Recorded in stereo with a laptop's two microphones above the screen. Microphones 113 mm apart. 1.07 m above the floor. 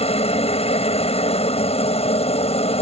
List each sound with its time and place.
0.0 s a helicopter: 75° left (ahead or behind)